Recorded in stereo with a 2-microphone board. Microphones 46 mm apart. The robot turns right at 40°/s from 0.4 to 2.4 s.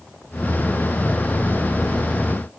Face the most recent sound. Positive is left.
No sound to turn to.